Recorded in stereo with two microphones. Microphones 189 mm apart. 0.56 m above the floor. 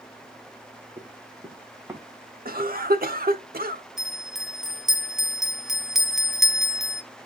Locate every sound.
1.0 s running footsteps: 35° right (ahead or behind), 3 m; by 2.0 s 10° right (ahead or behind), 3 m
2.5 s a cough: 50° right (ahead or behind), 1.1 m
4.0 s a bell: centre (ahead or behind), 0.8 m